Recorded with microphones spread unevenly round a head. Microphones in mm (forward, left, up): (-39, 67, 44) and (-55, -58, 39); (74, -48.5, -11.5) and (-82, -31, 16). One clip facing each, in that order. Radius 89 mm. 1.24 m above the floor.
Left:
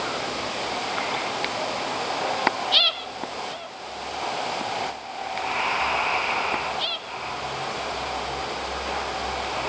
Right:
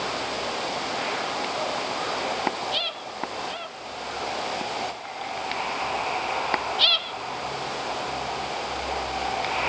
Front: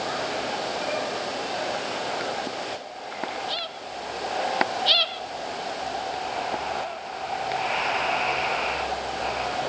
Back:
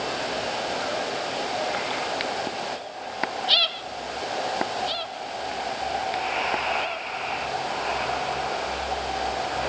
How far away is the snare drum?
I don't hear a snare drum.